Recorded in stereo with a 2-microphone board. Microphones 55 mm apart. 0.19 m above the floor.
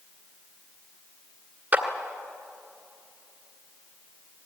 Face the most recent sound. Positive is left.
turn(degrees=-30)  # may be behind; listen again after turning